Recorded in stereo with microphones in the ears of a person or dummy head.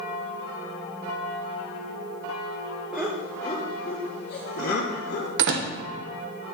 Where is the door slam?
60° right (ahead or behind), 0.8 m.